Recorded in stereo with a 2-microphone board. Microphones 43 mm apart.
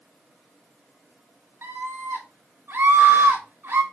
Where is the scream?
75° right (ahead or behind), 3.5 m.